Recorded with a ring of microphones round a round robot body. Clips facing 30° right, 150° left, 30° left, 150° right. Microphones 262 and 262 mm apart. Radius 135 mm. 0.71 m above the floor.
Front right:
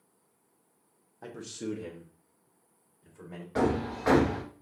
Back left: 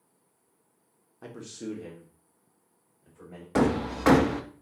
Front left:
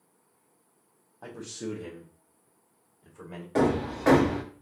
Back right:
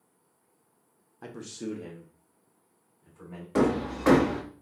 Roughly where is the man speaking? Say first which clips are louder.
Front right 1 dB, even; behind right.